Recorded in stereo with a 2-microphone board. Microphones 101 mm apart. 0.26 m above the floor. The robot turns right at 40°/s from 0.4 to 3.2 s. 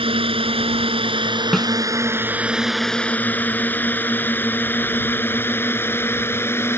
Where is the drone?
65° right (ahead or behind); by 6.8 s 25° left (ahead or behind).